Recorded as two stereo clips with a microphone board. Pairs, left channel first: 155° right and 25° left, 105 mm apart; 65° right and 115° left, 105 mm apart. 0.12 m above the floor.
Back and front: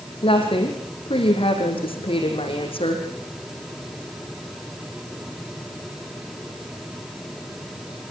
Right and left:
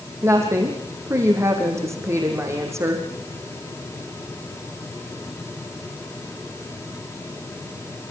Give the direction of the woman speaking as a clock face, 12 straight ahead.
6 o'clock.